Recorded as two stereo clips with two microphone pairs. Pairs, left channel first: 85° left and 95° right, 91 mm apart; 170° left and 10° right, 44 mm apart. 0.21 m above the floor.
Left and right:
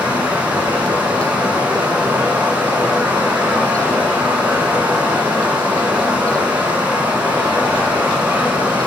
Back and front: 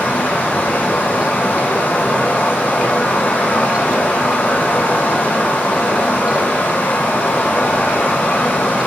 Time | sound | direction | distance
0.0 | running water | 160° right | 0.7 m